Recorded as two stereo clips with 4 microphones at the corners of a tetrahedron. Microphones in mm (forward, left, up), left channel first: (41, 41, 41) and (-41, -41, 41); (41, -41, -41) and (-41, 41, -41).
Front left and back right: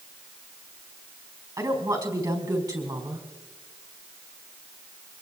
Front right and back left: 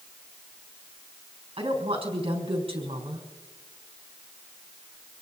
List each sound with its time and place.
1.6 s a woman speaking: 170° left, 4 m